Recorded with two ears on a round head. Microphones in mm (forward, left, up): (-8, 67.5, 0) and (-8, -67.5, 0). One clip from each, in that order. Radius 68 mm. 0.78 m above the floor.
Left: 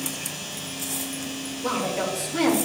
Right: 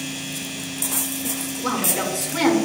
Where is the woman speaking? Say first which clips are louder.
Right 2 dB; 80° right, 2.5 m.